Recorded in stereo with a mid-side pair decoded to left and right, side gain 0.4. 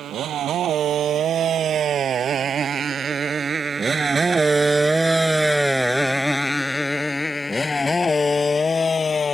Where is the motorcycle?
70° right; by 9.3 s 45° left.